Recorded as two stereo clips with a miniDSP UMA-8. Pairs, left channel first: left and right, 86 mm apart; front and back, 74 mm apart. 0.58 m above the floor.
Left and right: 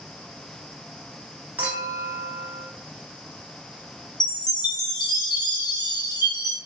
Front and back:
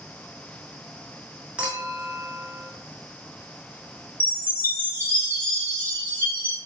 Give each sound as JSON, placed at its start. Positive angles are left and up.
{"t": 1.6, "sound": "a clink", "azimuth_deg": -125, "distance_m": 0.7}
{"t": 4.2, "sound": "a chime", "azimuth_deg": 60, "distance_m": 0.7}